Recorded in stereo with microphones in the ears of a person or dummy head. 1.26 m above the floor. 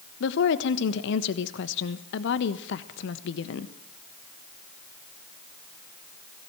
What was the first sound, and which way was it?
A woman speaking, 70° left (ahead or behind).